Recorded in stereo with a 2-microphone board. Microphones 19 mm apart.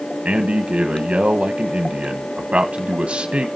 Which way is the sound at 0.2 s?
70° right (ahead or behind).